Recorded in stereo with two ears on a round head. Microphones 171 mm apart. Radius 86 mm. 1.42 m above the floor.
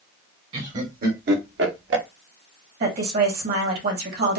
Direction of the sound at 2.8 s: 60° right (ahead or behind).